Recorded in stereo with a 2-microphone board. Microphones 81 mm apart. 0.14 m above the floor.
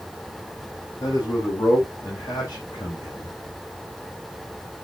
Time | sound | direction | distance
1.0 | a man speaking | 45° left (ahead or behind) | 7.5 m